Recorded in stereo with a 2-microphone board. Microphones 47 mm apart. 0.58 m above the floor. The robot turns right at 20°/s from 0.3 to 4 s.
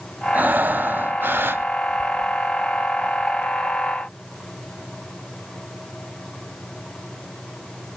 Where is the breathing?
40° right (ahead or behind), 0.5 m; by 1.6 s 55° right (ahead or behind), 0.5 m.